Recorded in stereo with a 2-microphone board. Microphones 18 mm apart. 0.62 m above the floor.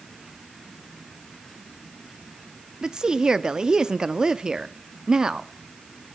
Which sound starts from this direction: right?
A woman speaking, at 2.8 s.